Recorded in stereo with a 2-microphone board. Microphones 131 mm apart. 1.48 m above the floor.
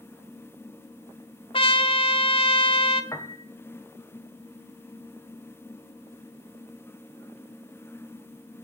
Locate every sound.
1.5 s a trumpet: 40° left (ahead or behind), 1.2 m
3.1 s a piano: 25° left (ahead or behind), 1.4 m